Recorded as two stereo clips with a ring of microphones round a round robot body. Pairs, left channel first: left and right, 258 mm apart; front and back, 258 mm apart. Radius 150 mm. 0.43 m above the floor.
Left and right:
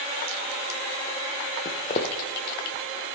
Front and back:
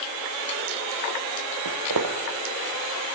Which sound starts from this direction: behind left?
Footsteps, at 1.6 s.